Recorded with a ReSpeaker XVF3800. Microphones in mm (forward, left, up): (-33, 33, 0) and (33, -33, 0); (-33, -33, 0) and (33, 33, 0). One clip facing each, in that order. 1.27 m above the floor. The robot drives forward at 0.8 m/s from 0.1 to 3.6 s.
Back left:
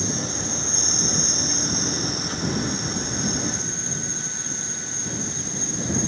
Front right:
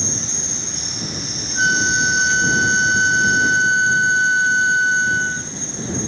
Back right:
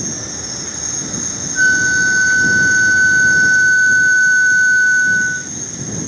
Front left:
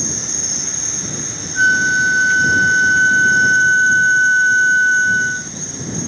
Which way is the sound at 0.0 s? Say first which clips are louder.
Back left 2 dB, back right 1 dB; 95° right.